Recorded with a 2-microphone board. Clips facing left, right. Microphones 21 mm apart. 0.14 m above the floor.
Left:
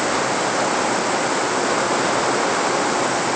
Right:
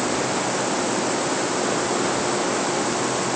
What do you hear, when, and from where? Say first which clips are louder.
0.0 s running water: left 3 dB; 30° left (ahead or behind)